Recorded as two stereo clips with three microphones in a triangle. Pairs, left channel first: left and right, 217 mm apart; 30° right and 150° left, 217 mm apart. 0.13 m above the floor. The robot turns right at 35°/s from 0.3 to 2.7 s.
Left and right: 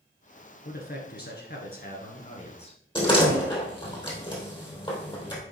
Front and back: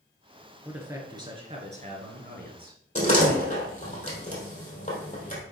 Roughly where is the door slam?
Ahead left.